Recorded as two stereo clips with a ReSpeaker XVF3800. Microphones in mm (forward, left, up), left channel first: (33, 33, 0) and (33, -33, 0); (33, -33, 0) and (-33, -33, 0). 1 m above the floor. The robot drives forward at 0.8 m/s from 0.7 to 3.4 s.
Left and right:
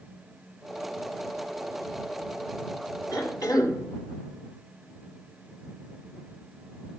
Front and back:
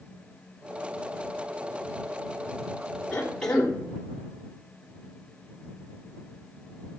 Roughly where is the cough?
Left.